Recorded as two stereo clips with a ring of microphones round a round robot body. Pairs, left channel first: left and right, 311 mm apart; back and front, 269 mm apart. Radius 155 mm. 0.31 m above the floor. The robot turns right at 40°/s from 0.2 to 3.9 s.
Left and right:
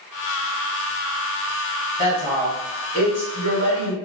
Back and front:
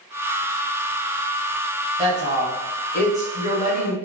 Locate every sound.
2.0 s a woman speaking: 60° left, 1.7 m; by 3.9 s 140° left, 1.7 m